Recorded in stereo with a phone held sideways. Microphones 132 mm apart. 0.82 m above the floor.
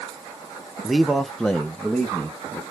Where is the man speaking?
Centre (ahead or behind), 0.5 m; by 2.6 s 10° left (ahead or behind), 1.0 m.